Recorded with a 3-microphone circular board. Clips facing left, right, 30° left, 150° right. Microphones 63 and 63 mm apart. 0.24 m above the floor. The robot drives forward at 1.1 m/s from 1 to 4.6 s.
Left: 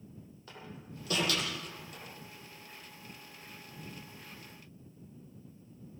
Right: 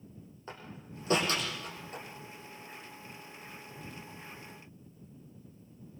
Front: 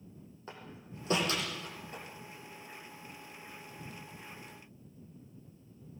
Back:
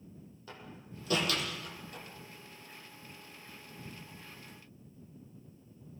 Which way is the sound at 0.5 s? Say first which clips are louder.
Right 2 dB, front 1 dB; 30° right.